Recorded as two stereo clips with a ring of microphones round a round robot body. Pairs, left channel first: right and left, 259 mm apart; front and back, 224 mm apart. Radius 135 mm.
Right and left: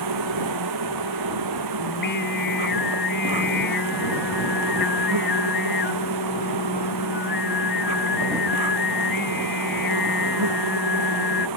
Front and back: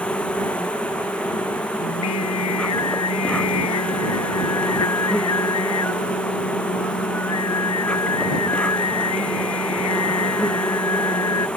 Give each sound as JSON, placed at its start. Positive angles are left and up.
{"t": 0.0, "sound": "an insect", "azimuth_deg": 85}
{"t": 1.8, "sound": "singing", "azimuth_deg": -35}